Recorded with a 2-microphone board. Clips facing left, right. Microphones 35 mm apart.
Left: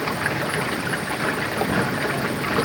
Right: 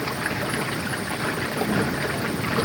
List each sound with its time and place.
0.0 s running water: 15° left (ahead or behind)